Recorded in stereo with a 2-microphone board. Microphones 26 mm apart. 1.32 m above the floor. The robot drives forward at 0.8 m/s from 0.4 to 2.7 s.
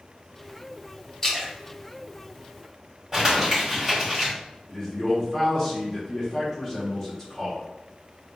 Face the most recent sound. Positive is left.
turn(degrees=15)  # may be behind; listen again after turning